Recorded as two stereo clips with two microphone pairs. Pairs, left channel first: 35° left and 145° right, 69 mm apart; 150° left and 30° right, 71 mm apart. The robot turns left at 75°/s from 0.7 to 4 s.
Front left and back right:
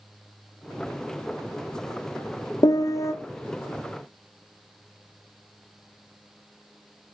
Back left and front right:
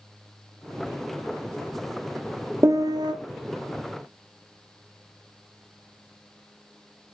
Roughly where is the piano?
Ahead.